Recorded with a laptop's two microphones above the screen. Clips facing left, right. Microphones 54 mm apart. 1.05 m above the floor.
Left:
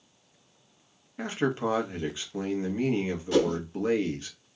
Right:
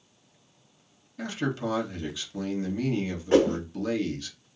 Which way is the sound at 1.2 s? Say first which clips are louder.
Left 2 dB; 30° left (ahead or behind).